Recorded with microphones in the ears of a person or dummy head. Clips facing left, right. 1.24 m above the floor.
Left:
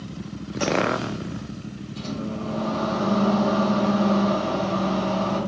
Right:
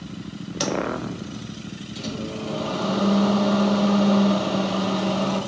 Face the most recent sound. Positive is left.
turn(degrees=-70)  # may be behind; listen again after turning